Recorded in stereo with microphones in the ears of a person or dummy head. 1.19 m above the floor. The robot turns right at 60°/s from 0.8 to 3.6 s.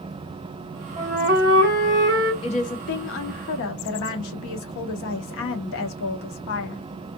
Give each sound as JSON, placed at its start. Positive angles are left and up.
{"t": 1.0, "sound": "a flute", "azimuth_deg": -140, "distance_m": 1.5}
{"t": 2.4, "sound": "a woman speaking", "azimuth_deg": 30, "distance_m": 0.8}